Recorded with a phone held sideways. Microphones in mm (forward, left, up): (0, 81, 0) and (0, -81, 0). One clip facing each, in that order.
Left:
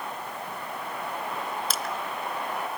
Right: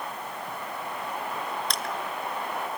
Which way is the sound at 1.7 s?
5° left (ahead or behind).